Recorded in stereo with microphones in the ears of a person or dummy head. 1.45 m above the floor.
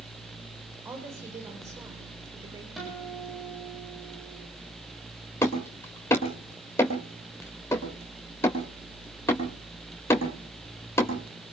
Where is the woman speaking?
10° right (ahead or behind), 4.5 m; by 2.7 s 15° right (ahead or behind), 4 m.